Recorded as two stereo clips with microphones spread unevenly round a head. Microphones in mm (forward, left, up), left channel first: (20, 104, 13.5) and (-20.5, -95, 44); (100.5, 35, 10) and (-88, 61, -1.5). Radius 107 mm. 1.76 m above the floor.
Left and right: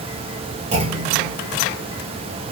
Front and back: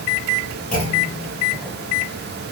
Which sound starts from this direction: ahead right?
A clunk, at 0.7 s.